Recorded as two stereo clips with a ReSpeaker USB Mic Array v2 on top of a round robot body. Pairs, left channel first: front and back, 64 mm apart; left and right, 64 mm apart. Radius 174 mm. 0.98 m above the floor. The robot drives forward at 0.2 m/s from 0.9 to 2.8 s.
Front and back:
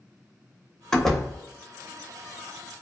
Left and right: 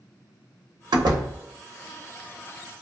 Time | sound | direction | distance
0.9 | a door slam | 80° right | 0.6 m